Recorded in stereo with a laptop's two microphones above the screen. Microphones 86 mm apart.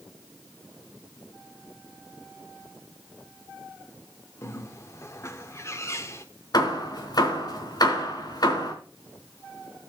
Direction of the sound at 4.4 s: 35° left (ahead or behind).